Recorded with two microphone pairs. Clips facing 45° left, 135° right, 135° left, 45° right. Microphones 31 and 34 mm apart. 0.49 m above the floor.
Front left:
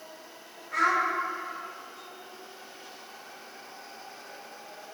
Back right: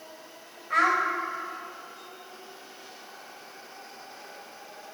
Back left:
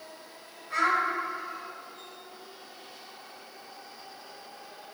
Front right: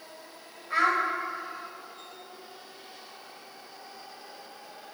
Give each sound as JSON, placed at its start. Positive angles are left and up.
{"t": 0.7, "sound": "a child speaking", "azimuth_deg": -110, "distance_m": 1.7}